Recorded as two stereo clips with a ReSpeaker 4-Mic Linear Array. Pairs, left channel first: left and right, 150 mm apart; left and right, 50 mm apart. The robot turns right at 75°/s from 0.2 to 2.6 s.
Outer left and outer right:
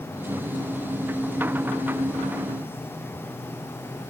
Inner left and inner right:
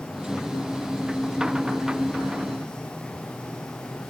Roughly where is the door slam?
I don't hear a door slam.